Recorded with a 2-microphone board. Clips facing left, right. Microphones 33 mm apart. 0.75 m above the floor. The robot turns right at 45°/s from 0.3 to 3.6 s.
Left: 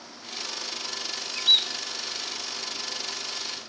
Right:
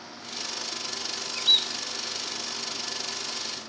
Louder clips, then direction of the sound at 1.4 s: Left 1 dB; centre (ahead or behind).